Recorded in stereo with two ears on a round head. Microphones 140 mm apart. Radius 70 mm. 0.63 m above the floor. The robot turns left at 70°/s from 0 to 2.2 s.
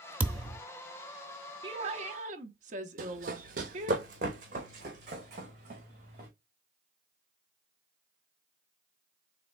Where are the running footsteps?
60° right (ahead or behind), 1.1 m; by 6.3 s 50° right (ahead or behind), 3 m.